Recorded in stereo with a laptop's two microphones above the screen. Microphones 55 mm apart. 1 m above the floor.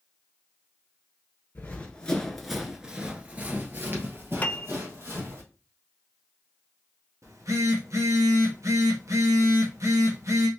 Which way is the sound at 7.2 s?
75° right (ahead or behind).